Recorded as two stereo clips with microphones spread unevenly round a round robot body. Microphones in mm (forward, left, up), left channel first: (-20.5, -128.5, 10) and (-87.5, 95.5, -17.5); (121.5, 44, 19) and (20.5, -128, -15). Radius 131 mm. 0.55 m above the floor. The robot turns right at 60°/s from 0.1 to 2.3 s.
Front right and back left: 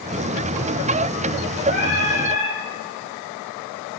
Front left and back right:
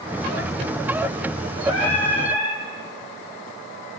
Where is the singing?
30° left, 6 m; by 2.6 s 70° left, 6 m.